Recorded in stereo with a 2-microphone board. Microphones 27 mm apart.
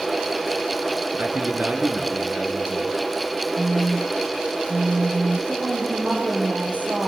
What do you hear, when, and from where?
1.2 s a man speaking: 65° right (ahead or behind), 4 m
3.6 s a phone buzzing: 80° right, 1.5 m
5.5 s a woman speaking: 80° right, 7.5 m